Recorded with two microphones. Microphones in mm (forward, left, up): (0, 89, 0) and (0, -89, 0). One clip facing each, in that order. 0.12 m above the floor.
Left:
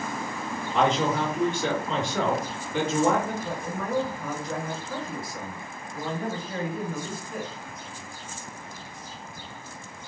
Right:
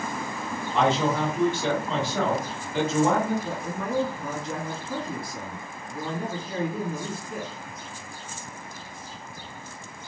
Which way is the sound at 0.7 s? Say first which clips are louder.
Right 1 dB; 5° right (ahead or behind).